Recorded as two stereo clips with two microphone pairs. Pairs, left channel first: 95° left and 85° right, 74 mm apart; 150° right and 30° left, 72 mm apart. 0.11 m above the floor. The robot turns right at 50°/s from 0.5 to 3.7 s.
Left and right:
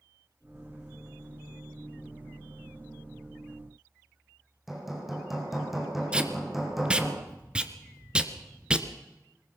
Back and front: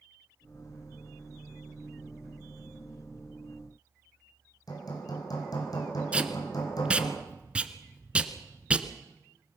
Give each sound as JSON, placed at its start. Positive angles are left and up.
{"t": 4.7, "sound": "hammering", "azimuth_deg": -175, "distance_m": 5.5}
{"t": 6.1, "sound": "tape being pulled", "azimuth_deg": -30, "distance_m": 1.3}